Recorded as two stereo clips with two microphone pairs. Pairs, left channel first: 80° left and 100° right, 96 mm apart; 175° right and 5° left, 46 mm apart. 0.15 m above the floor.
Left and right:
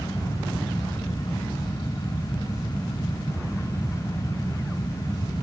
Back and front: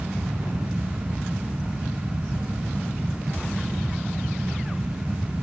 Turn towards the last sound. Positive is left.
No sound to turn to.